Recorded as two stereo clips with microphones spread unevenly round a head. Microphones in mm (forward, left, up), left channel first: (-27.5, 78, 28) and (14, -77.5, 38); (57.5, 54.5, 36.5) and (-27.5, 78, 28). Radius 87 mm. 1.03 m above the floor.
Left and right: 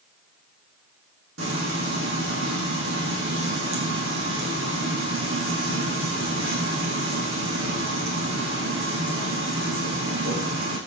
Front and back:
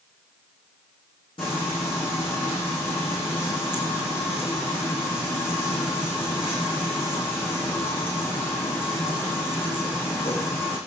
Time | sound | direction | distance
1.4 | frying | 75° right | 9.5 m